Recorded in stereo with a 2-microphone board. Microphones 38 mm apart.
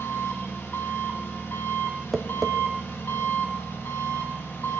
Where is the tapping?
Centre (ahead or behind), 0.7 m.